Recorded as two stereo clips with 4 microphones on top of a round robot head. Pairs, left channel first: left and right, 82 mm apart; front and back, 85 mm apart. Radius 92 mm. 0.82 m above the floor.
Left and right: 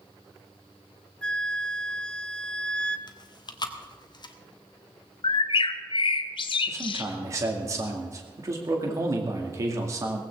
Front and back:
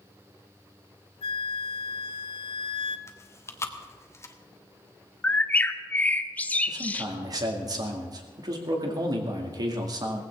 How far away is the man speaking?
About 2 m.